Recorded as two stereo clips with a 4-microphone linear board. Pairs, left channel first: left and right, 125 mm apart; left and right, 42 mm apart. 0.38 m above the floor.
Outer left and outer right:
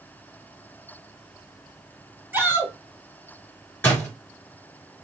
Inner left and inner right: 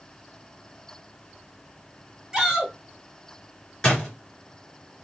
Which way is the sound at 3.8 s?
20° left (ahead or behind).